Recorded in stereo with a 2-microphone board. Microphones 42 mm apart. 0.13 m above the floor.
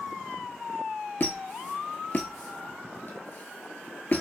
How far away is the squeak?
About 0.6 m.